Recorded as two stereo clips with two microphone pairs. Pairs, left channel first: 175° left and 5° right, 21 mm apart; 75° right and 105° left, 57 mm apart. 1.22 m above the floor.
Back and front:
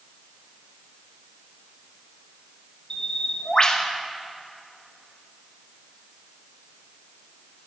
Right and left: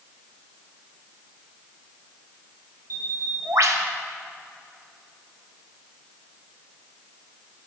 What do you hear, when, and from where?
2.9 s a bird: 120° left, 0.6 m